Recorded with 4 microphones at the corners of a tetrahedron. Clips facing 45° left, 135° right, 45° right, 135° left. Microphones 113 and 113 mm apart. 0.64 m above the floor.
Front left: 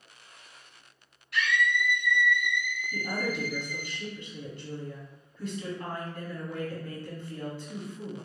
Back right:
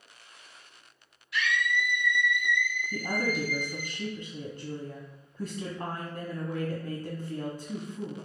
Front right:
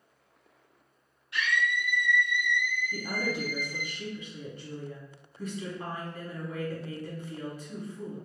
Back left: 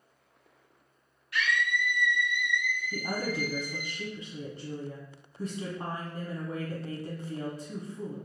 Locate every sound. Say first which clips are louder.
1.3 s a scream: front left 2 dB, even; 15° left, 1.8 m; by 3.9 s 70° right, 1.5 m
2.9 s a woman speaking: back right 1 dB, back left 1 dB; 165° right, 0.8 m